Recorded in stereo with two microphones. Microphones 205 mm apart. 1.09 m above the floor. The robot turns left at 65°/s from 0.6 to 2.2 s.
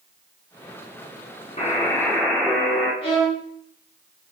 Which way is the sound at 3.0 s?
30° left (ahead or behind).